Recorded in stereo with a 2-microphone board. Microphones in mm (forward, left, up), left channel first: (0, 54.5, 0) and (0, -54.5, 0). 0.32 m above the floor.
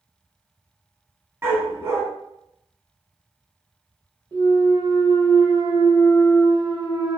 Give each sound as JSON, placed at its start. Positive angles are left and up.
{"t": 1.4, "sound": "a dog barking", "side_deg": -25, "distance_m": 0.8}
{"t": 4.3, "sound": "a clunk", "side_deg": -35, "distance_m": 0.9}